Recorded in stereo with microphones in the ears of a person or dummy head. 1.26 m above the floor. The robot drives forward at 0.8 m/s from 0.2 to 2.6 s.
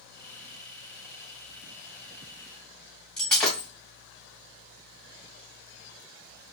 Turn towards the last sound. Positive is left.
turn(degrees=10)  # may be behind; listen again after turning